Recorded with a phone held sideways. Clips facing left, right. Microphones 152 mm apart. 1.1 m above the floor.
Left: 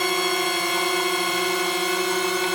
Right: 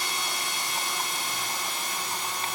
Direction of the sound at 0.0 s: 60° left (ahead or behind).